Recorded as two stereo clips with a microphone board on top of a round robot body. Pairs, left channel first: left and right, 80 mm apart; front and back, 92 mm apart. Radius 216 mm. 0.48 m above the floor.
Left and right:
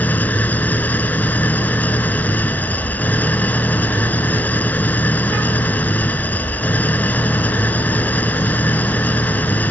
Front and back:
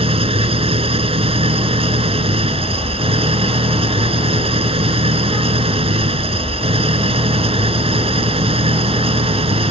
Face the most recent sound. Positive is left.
turn(degrees=160)